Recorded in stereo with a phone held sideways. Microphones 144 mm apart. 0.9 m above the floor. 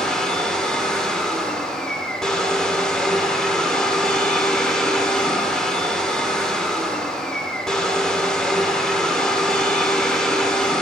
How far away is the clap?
I don't hear a clap.